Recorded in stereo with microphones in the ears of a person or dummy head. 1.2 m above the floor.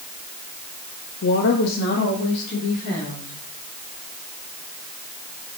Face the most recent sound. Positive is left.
turn(degrees=50)  # may be behind; listen again after turning